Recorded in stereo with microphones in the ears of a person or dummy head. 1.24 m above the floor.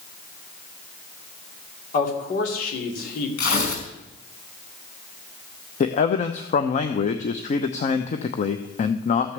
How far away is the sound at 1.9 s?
About 3 m.